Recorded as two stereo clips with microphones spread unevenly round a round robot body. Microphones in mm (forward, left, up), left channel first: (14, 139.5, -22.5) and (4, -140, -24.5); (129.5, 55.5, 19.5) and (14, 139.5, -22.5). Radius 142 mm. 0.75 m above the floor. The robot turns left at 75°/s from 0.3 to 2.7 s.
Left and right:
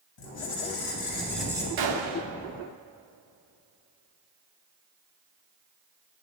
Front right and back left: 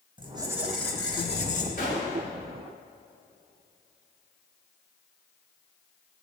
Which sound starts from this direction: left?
A squeak, at 0.2 s.